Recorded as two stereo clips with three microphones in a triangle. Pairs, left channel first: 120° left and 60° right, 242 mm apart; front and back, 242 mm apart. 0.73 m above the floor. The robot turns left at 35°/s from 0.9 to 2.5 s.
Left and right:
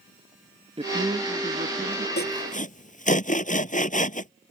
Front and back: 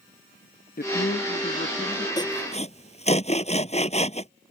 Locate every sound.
0.8 s a man speaking: 5° right; by 2.1 s 45° right
2.2 s sawing: 75° left; by 4.3 s 65° left